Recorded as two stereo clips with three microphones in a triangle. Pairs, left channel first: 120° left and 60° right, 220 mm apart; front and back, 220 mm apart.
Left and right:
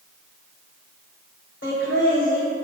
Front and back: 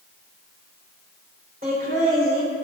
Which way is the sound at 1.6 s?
135° left.